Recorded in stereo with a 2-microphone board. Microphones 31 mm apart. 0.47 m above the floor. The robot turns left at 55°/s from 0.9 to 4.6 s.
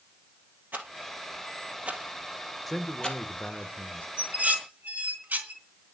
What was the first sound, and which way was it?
A rattle, 85° right.